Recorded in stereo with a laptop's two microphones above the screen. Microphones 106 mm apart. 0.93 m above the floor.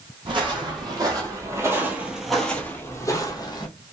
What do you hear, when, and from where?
0.2 s footsteps: 50° right (ahead or behind), 1.8 m; by 3.7 s 40° left (ahead or behind), 1.3 m